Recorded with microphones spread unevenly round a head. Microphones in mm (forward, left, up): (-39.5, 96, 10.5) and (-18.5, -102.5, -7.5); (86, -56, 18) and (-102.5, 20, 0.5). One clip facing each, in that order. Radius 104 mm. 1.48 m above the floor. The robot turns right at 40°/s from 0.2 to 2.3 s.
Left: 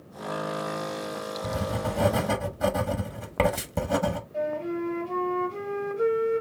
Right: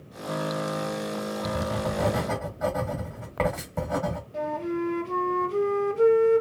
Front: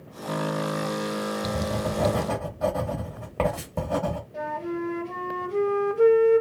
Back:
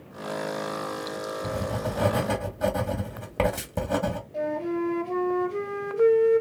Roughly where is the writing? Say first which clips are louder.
Left 1 dB, front 2 dB; ahead left.